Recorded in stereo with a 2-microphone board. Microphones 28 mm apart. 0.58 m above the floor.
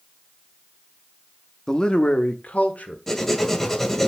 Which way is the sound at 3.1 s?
15° left (ahead or behind).